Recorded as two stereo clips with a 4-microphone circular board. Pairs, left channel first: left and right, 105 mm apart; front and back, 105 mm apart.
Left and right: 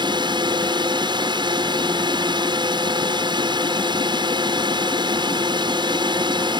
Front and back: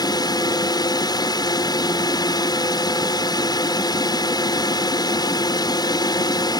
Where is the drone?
50° right.